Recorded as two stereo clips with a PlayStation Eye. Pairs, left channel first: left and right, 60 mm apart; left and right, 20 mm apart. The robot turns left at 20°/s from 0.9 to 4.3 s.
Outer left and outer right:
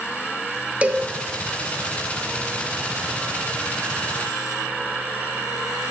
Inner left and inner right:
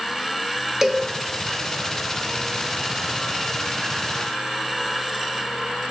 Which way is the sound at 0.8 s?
20° right (ahead or behind).